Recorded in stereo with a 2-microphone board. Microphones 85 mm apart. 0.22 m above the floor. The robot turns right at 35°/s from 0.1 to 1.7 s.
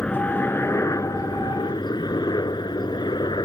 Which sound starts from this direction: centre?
A helicopter, at 0.0 s.